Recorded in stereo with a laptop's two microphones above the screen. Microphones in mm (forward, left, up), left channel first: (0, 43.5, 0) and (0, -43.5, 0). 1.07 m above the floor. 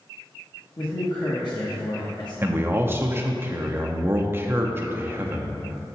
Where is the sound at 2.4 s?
25° right (ahead or behind), 0.6 m.